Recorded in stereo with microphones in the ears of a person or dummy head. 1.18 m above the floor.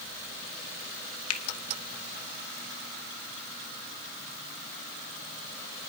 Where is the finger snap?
75° left (ahead or behind), 1.0 m.